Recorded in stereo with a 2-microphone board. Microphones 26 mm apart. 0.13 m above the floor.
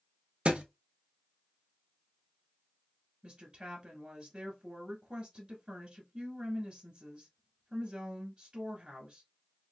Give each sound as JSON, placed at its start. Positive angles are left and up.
{"t": 0.5, "sound": "a thud", "side_deg": -50, "distance_m": 0.8}
{"t": 3.2, "sound": "a woman speaking", "side_deg": -30, "distance_m": 1.3}